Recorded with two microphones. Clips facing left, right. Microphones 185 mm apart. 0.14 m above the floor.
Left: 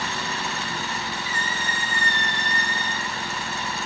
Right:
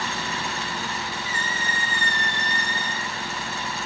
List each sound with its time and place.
1.2 s a squeak: 35° left (ahead or behind), 4 m